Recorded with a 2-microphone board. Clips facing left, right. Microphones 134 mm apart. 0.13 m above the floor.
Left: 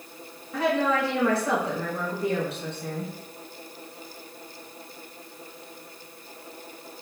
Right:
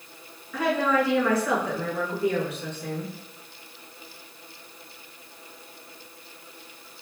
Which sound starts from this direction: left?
A woman speaking, at 0.5 s.